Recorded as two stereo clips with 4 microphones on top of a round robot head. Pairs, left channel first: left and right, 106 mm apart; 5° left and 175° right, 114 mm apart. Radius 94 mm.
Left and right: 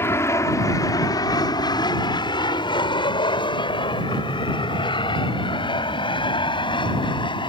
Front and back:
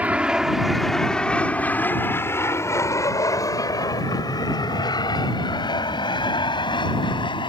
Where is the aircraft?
125° left; by 7.5 s 50° left.